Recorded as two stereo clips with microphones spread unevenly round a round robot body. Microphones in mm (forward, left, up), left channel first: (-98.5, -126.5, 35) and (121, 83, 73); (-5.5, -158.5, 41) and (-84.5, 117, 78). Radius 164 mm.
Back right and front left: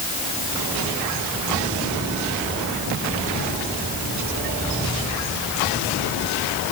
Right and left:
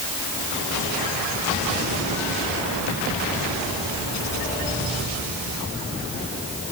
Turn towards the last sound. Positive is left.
No sound to turn to.